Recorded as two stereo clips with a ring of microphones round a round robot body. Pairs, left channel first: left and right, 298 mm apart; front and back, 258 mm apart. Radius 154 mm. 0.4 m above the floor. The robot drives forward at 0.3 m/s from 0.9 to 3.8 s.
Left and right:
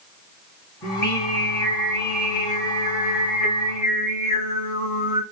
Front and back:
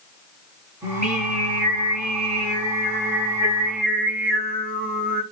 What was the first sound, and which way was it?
Singing, 125° left.